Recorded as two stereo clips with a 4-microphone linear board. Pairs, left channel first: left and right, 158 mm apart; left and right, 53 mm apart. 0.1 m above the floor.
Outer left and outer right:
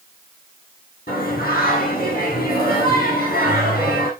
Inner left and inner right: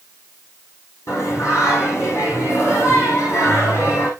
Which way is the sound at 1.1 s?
65° left (ahead or behind).